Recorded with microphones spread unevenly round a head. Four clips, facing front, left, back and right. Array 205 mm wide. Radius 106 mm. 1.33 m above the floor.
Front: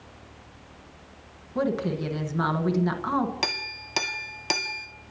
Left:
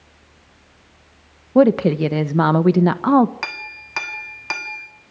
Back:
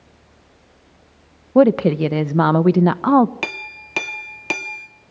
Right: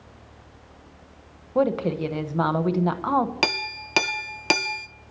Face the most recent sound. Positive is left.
turn(degrees=-120)